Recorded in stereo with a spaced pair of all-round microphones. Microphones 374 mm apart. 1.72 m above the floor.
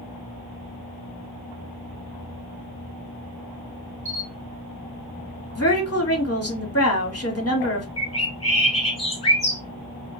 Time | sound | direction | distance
4.0 | a camera shutter | 35° right (ahead or behind) | 1.5 m
5.5 | a woman speaking | 40° left (ahead or behind) | 1.1 m
8.0 | a bird | 15° left (ahead or behind) | 1.3 m